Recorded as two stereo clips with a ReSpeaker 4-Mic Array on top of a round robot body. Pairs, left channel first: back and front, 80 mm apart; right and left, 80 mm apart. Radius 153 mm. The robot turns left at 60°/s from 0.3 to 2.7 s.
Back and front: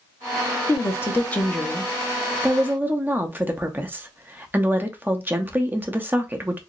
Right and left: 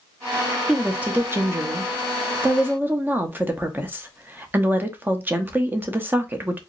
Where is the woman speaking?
165° left, 0.9 m; by 6.6 s 45° left, 0.9 m.